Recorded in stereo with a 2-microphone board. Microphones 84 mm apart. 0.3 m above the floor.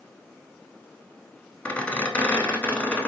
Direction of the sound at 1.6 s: 15° left (ahead or behind).